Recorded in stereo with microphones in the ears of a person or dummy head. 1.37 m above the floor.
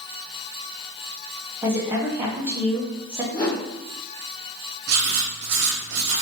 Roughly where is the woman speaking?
Centre.